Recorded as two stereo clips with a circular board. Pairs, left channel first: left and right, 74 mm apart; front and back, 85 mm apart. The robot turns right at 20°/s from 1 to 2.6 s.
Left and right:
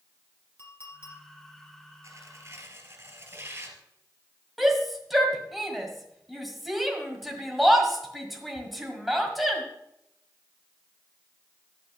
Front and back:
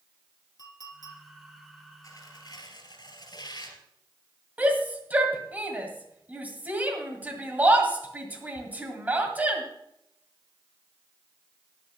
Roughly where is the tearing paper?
Ahead right.